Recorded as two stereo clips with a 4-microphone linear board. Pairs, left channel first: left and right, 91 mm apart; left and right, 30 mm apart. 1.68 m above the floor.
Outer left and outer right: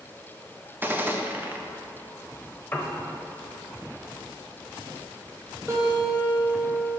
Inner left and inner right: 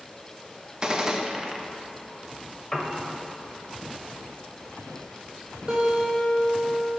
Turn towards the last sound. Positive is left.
turn(degrees=-30)  # may be behind; listen again after turning